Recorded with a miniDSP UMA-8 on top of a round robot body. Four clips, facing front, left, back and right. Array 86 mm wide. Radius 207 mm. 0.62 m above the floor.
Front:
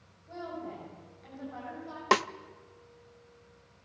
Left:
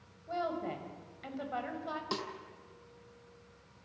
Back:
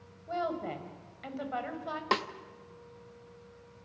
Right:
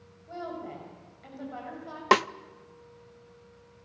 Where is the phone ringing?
I don't hear a phone ringing.